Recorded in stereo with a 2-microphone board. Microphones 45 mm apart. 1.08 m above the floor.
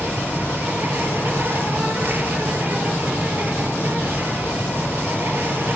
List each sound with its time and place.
0.0 s an insect: 45° right (ahead or behind), 3 m